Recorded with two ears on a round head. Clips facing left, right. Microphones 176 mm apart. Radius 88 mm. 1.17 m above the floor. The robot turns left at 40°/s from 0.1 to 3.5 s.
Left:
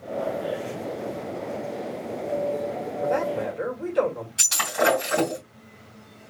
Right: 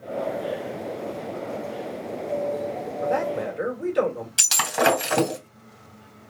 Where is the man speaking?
Centre (ahead or behind), 2.5 m; by 4.3 s 20° right (ahead or behind), 2.5 m.